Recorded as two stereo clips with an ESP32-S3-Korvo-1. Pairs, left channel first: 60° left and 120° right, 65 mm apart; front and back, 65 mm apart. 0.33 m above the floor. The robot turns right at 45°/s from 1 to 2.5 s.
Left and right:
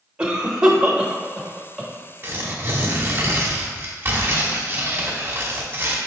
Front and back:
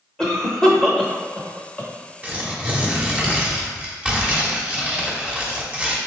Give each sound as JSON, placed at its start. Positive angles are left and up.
{"t": 0.2, "sound": "a cough", "azimuth_deg": -60, "distance_m": 0.9}
{"t": 2.2, "sound": "tearing paper", "azimuth_deg": -135, "distance_m": 0.9}